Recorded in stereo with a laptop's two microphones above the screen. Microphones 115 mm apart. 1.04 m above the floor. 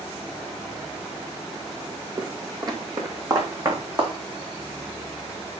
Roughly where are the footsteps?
Right.